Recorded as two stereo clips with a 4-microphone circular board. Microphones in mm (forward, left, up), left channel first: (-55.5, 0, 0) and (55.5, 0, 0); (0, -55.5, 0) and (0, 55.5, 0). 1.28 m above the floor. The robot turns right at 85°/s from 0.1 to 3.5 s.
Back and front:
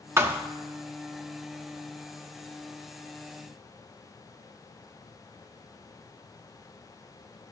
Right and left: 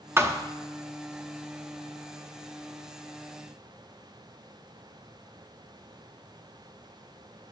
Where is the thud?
45° left, 0.8 m; by 0.5 s 70° left, 0.8 m.